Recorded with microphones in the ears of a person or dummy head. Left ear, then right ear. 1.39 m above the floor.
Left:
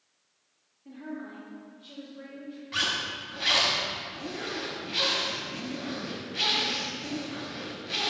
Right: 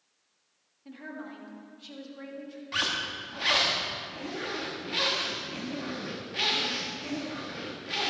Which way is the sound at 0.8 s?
40° right (ahead or behind).